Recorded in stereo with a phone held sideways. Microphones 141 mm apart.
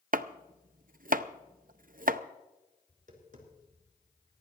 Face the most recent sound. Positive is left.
turn(degrees=-65)  # may be behind; listen again after turning